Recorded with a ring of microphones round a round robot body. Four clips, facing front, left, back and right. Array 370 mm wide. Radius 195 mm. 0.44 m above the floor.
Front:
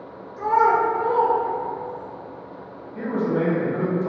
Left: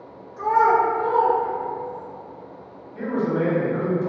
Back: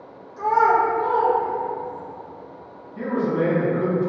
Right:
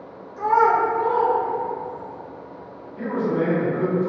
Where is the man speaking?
20° left, 1.0 m.